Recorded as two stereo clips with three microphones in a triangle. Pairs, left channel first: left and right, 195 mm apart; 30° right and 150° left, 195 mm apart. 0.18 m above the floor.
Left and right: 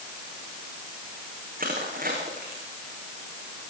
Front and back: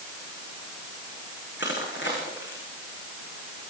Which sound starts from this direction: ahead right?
Crushing, at 1.6 s.